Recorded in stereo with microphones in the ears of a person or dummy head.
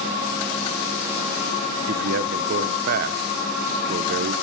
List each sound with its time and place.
1.9 s a man speaking: 55° right (ahead or behind), 0.9 m